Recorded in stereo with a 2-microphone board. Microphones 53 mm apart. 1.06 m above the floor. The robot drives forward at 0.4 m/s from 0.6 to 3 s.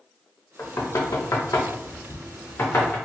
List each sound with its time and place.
0.6 s knocking: 60° left (ahead or behind), 0.6 m; by 3.0 s 40° left (ahead or behind), 0.8 m